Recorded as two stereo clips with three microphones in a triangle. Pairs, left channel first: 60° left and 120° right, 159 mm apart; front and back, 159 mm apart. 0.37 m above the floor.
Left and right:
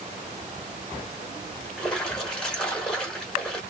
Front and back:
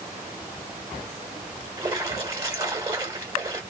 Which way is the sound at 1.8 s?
135° left.